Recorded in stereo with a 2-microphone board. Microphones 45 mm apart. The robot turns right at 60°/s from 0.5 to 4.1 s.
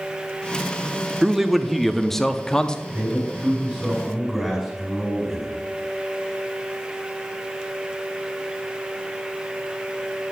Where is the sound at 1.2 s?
10° right (ahead or behind), 0.5 m; by 2.8 s 15° left (ahead or behind), 0.5 m.